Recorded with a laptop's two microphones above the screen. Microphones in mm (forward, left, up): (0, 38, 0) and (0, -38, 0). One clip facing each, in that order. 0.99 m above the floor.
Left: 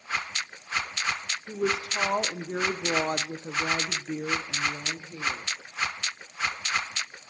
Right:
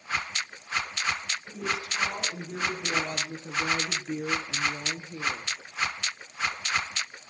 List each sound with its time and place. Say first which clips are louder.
1.5 s a woman speaking: left 5 dB; 80° left, 2 m; by 5.5 s 30° right (ahead or behind), 1.7 m